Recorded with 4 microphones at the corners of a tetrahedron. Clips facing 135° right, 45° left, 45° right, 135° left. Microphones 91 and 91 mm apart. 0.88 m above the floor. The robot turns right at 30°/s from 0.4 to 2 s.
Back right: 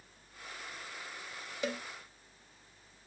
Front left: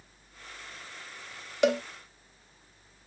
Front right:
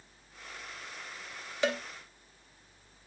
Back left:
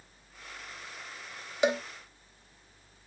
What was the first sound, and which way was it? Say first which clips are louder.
A cowbell: front left 13 dB, back left 4 dB; 60° left.